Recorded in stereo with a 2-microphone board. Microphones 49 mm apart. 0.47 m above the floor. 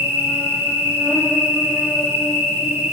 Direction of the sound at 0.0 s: 60° right (ahead or behind).